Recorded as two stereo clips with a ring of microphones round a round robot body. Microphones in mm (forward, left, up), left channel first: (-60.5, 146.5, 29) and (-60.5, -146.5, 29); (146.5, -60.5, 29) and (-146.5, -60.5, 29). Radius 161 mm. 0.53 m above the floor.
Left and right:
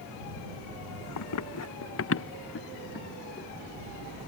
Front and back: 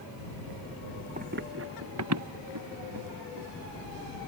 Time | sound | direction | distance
1.2 | running footsteps | 110° left | ?